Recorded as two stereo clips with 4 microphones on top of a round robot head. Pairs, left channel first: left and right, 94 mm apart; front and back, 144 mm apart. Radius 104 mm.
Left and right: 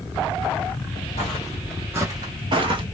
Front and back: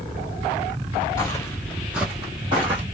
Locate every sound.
1.2 s footsteps: 60° left, 0.8 m; by 2.8 s 115° right, 1.2 m